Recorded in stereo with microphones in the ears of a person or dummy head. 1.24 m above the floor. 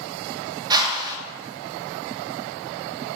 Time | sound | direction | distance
0.7 | a whoosh | 25° right (ahead or behind) | 1.1 m